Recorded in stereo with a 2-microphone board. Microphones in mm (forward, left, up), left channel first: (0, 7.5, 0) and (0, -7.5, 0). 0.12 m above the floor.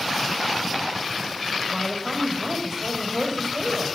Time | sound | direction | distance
1.7 | a woman speaking | 30° right (ahead or behind) | 5 m